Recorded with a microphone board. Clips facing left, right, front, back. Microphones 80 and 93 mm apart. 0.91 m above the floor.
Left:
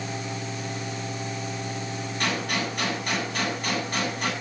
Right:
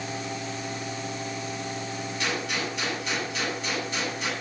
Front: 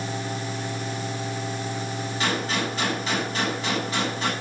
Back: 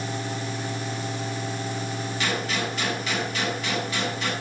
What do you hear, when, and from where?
2.2 s a gunshot: 55° left, 7.5 m